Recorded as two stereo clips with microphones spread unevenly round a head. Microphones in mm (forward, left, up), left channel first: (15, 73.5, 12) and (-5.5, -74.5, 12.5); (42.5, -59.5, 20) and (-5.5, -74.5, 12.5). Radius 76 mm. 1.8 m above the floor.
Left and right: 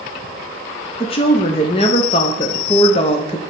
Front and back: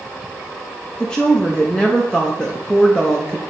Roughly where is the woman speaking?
Left.